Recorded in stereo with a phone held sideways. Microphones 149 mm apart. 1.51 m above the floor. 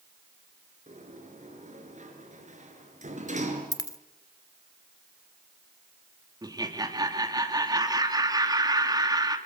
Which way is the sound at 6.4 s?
25° right (ahead or behind).